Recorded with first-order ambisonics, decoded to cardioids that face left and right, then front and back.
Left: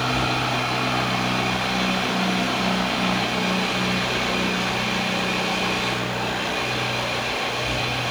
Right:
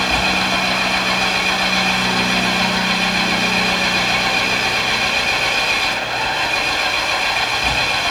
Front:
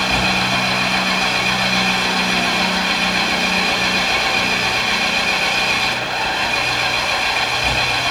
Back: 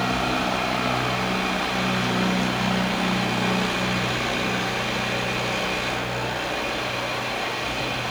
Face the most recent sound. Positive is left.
turn(degrees=-40)